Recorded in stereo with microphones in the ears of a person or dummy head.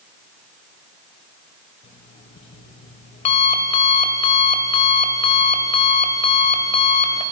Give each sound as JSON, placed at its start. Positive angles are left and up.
{"t": 1.8, "sound": "an alarm clock", "side_deg": 35, "distance_m": 2.0}